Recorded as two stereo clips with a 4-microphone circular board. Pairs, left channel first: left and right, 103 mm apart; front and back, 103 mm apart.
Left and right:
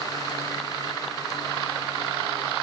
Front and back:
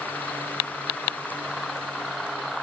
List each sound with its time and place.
Only background noise.